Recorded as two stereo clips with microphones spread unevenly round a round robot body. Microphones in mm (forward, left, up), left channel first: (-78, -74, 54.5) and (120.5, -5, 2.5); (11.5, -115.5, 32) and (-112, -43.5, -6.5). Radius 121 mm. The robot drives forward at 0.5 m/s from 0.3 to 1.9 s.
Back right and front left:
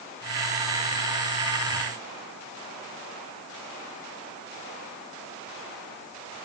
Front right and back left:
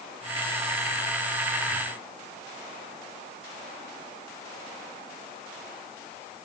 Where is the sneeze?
I don't hear a sneeze.